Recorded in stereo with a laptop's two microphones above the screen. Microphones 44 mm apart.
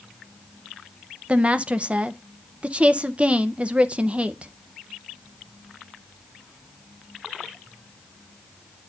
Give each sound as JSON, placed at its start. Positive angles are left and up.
{"t": 1.3, "sound": "a woman speaking", "side_deg": -30, "distance_m": 0.6}